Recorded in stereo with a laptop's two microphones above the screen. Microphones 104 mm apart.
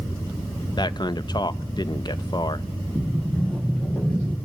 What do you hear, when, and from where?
0.8 s a man speaking: 45° left (ahead or behind), 0.6 m
3.0 s a sliding door: 15° left (ahead or behind), 3.5 m